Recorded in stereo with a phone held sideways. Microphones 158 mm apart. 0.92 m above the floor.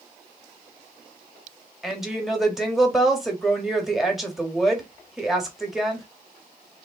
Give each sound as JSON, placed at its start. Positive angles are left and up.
{"t": 1.8, "sound": "a woman speaking", "side_deg": 0, "distance_m": 1.4}